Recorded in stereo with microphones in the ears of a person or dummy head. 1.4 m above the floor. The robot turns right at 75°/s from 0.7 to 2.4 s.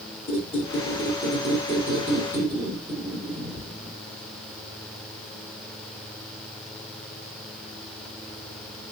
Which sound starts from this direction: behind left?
A squeak, at 0.3 s.